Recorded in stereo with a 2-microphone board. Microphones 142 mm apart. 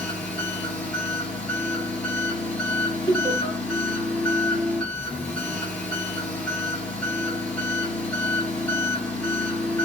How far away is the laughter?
About 1.8 m.